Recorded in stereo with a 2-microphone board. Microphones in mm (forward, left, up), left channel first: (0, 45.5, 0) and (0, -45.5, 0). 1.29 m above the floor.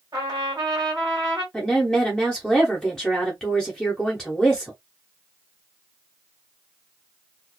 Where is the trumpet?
50° right (ahead or behind), 1.5 m.